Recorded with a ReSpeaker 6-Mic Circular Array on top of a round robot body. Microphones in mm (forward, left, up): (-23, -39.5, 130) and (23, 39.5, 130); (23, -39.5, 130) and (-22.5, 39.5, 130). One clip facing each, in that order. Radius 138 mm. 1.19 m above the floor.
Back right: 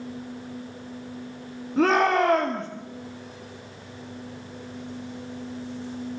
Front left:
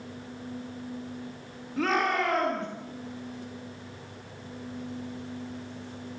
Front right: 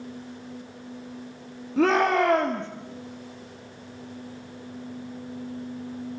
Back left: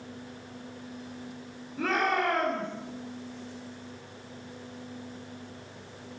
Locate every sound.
1.8 s a shout: 65° right, 2.5 m